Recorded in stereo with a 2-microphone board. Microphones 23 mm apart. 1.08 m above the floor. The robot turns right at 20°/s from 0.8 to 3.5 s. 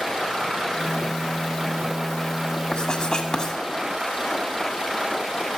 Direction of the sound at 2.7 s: 35° left (ahead or behind).